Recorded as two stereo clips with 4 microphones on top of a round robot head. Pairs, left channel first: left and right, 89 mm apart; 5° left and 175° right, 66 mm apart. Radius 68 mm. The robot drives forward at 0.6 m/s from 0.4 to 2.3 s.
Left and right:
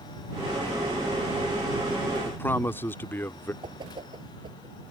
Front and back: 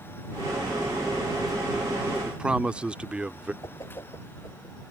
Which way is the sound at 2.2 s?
125° left.